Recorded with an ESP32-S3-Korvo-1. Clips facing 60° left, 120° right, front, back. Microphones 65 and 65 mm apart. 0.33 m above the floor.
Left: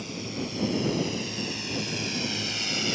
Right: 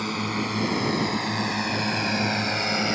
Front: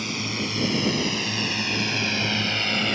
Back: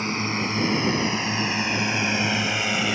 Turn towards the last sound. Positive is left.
turn(degrees=-100)